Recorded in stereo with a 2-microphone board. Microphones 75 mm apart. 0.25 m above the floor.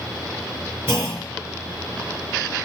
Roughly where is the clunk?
Right.